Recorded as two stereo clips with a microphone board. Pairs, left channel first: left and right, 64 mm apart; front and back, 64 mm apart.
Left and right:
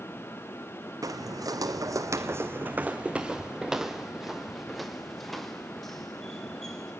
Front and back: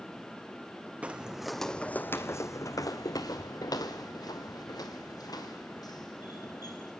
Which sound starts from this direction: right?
Footsteps, at 1.0 s.